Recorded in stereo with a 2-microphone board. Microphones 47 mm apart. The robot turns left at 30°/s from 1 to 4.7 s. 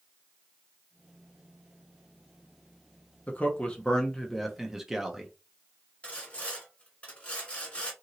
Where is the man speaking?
35° left, 0.7 m; by 5.3 s 5° right, 0.7 m.